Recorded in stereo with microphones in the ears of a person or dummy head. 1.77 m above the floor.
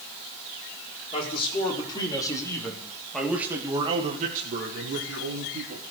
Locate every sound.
1.1 s a man speaking: 35° left (ahead or behind), 5 m; by 5.8 s 85° right, 3.5 m